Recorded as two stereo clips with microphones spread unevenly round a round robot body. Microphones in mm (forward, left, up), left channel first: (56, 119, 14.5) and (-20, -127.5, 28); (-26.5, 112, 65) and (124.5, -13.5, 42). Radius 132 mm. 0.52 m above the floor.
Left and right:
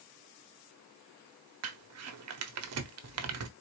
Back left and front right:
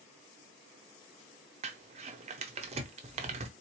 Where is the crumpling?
90° right, 0.8 m.